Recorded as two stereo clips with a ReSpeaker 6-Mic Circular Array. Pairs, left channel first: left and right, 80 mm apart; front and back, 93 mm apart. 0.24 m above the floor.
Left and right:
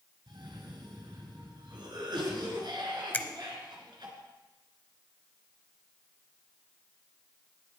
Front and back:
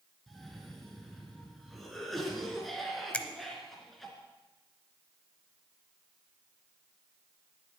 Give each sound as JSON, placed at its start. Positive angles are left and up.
{"t": 0.3, "sound": "a cough", "azimuth_deg": -90, "distance_m": 3.5}
{"t": 3.1, "sound": "a finger snap", "azimuth_deg": 55, "distance_m": 0.8}